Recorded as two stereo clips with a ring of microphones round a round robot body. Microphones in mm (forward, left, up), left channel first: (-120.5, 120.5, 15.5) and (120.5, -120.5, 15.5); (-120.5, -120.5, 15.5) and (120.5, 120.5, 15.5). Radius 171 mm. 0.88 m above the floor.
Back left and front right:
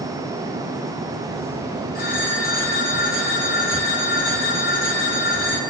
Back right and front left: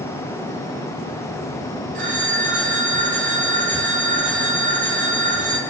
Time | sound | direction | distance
1.9 | a phone ringing | 70° left | 5 m